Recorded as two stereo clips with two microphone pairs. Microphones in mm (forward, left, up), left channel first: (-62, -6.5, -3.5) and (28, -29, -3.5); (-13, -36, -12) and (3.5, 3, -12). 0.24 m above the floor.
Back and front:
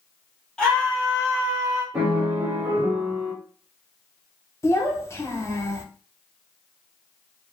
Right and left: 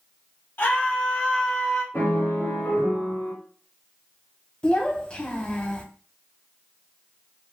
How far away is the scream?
About 1.5 m.